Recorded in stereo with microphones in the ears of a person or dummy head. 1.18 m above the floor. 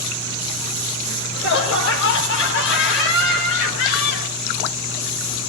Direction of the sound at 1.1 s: 75° left (ahead or behind).